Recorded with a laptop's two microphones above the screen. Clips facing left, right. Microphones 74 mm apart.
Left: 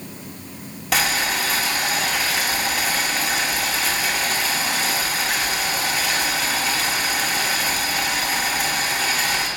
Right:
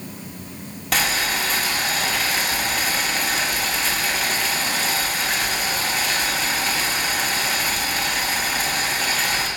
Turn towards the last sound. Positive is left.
turn(degrees=5)  # may be behind; listen again after turning